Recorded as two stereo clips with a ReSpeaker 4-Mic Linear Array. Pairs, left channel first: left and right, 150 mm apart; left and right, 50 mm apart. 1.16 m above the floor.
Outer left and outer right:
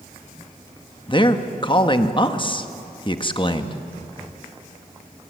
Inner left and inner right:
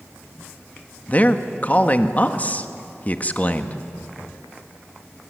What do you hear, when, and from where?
1.1 s a man speaking: 35° left (ahead or behind), 1.4 m